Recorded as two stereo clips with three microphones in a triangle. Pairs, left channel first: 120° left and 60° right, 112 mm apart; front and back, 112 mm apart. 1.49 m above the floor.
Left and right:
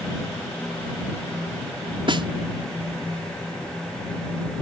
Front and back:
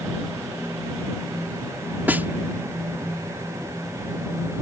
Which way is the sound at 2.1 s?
105° right.